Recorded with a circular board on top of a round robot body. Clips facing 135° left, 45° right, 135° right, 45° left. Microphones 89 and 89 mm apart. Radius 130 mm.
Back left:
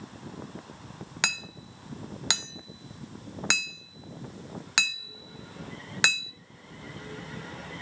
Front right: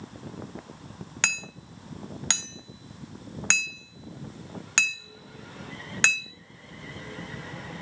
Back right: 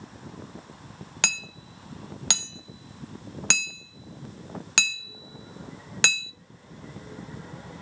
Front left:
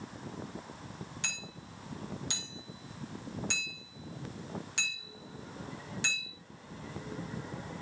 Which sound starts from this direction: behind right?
Hammering, at 1.2 s.